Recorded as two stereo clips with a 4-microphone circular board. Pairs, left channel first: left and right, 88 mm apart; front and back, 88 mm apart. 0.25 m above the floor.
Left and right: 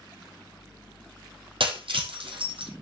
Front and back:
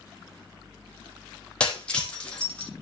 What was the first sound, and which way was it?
Breaking glass, 80° right.